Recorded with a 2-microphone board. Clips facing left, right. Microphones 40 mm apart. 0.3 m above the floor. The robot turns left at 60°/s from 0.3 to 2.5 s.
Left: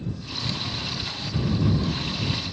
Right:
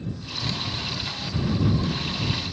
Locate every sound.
Only background noise.